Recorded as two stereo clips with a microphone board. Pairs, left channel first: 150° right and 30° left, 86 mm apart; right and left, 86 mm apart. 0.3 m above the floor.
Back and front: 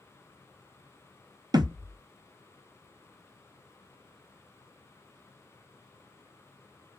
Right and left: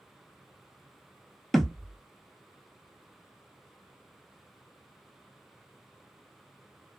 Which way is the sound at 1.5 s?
Straight ahead.